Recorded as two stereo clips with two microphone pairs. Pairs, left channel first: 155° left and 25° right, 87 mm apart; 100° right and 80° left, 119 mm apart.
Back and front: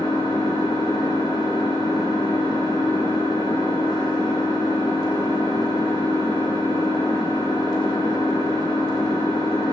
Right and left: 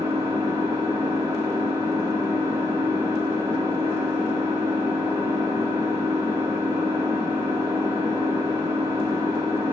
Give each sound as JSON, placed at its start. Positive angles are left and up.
{"t": 0.0, "sound": "an engine running", "azimuth_deg": 145, "distance_m": 0.8}